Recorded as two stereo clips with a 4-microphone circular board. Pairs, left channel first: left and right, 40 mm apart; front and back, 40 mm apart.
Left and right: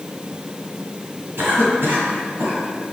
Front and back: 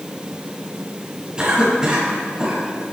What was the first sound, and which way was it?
A cough, 110° right.